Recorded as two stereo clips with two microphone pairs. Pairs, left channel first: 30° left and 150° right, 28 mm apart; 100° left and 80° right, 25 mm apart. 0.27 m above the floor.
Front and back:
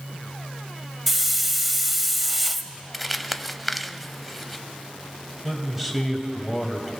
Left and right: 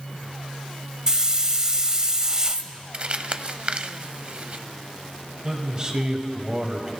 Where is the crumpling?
55° right, 0.5 m.